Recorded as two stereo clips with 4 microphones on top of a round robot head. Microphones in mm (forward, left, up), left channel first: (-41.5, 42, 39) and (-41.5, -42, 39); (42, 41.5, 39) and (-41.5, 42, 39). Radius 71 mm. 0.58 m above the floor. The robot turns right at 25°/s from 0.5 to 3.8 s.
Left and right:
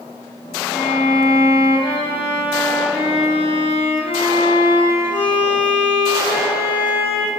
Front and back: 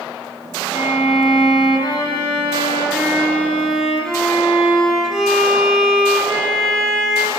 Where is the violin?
10° left, 0.7 m; by 7.3 s 90° left, 0.7 m.